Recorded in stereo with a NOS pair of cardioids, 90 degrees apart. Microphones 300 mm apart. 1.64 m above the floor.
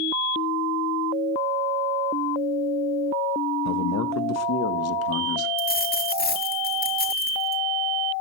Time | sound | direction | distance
3.6 | a man speaking | 65° left | 1.8 m
5.6 | a dropped coin | 30° left | 4 m